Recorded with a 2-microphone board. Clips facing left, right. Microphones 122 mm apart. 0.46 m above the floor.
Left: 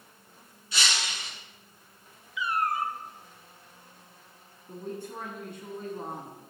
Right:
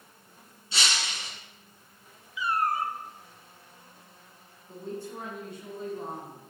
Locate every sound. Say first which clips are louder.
0.7 s breaking glass: even; 30° right (ahead or behind), 3.5 m
2.4 s a cat meowing: right 1 dB; 35° right (ahead or behind), 0.8 m
4.7 s a woman speaking: even; 60° left (ahead or behind), 3.5 m